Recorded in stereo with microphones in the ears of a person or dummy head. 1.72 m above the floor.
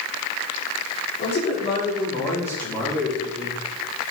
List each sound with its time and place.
1.2 s a man speaking: 35° left (ahead or behind), 5 m; by 3.6 s centre (ahead or behind), 5 m